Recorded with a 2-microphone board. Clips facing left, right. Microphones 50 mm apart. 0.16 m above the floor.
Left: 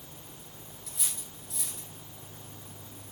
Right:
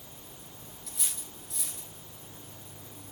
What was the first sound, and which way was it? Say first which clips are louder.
Cutlery clinking: even; centre (ahead or behind).